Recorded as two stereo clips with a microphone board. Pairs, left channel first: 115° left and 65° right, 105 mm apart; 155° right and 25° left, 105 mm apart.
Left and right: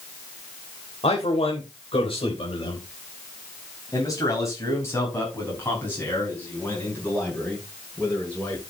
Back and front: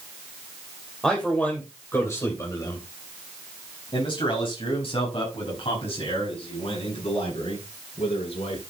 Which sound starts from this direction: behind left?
A man speaking, at 1.0 s.